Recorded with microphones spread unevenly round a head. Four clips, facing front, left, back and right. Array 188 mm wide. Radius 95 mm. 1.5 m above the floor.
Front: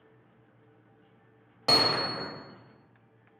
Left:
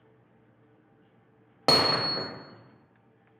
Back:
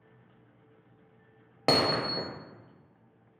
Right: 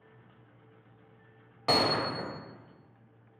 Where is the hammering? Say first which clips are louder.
Left 2 dB, back 1 dB; 125° left, 0.5 m.